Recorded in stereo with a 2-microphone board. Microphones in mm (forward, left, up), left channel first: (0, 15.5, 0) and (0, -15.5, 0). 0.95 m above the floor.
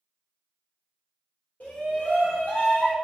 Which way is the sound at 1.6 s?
55° left (ahead or behind).